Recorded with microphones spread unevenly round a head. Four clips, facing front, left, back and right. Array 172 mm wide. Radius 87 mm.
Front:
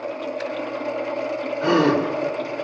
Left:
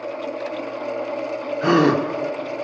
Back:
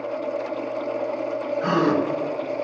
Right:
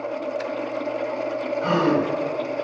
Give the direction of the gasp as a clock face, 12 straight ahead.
9 o'clock.